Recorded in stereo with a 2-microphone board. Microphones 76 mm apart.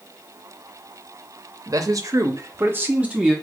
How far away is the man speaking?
About 0.7 m.